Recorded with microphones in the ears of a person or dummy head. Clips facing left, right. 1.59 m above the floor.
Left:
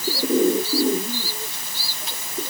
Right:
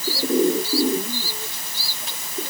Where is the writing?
I don't hear writing.